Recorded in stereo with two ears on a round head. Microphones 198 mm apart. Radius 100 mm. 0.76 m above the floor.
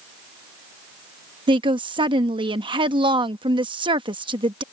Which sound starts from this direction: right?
A woman speaking, at 1.5 s.